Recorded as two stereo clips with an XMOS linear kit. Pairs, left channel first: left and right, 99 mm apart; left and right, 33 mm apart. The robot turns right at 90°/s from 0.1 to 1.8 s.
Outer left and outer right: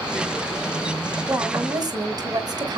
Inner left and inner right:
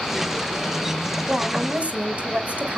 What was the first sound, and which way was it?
A woman speaking, 150° right.